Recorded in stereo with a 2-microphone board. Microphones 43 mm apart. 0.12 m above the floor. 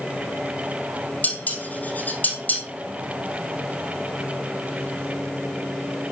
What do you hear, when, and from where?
1.2 s dishes clattering: 45° left (ahead or behind), 2.5 m